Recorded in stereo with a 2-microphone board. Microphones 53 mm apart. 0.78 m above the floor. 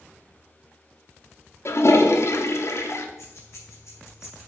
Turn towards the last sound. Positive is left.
turn(degrees=60)  # may be behind; listen again after turning